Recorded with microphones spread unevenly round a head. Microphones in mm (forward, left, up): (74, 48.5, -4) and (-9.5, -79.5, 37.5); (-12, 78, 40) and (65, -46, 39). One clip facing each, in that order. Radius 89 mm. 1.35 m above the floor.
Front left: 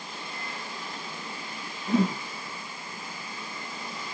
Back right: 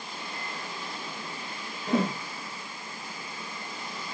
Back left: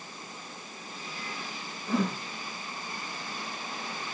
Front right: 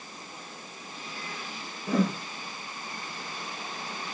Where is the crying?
No crying in this recording.